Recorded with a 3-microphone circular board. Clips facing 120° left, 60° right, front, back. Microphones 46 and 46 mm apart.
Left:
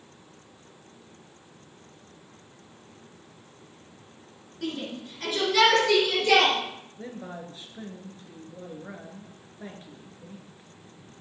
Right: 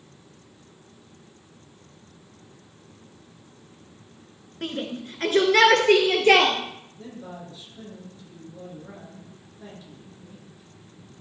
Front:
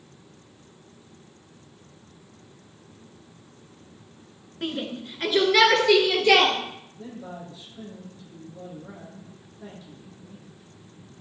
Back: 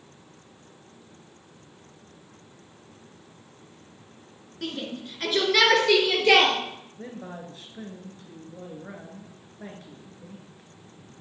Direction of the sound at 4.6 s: 55° right.